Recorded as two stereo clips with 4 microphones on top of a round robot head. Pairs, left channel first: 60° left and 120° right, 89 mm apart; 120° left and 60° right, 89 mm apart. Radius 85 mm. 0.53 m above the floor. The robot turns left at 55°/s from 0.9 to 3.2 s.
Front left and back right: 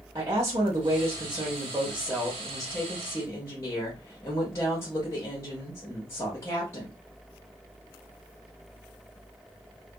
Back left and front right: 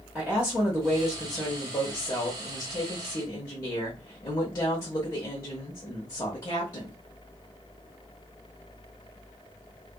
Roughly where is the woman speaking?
Behind right.